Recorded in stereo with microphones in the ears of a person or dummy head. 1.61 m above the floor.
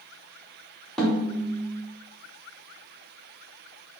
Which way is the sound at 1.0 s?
5° left (ahead or behind).